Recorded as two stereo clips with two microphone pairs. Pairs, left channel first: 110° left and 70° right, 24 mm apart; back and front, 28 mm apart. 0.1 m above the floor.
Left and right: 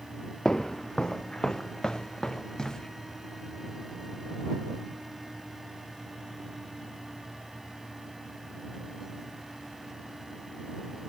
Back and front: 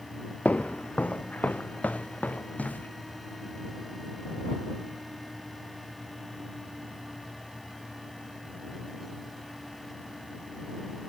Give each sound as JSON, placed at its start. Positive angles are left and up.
{"t": 0.5, "sound": "footsteps", "azimuth_deg": 165}